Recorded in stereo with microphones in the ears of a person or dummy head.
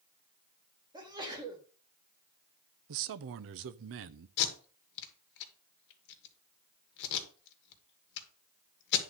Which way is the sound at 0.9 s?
20° right (ahead or behind).